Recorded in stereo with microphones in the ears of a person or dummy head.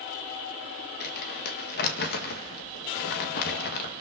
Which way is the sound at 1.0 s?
60° left (ahead or behind).